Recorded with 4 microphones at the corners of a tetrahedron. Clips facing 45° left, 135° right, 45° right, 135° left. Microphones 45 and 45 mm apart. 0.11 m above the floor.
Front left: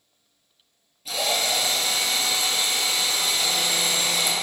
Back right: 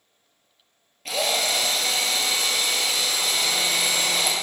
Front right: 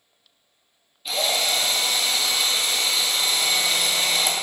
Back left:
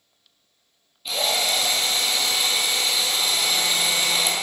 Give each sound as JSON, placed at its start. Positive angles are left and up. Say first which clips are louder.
{"t": 1.1, "sound": "a drill", "louder": "back right 1 dB, even", "azimuth_deg": -135, "distance_m": 2.5}